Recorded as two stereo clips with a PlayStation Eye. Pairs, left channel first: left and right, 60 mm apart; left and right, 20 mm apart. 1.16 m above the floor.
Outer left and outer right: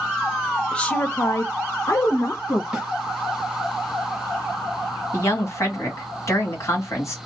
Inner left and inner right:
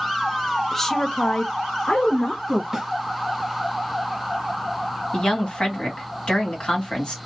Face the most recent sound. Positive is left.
turn(degrees=55)  # may be behind; listen again after turning